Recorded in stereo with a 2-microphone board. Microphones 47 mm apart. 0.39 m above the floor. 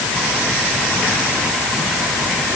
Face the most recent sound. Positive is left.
No sound to turn to.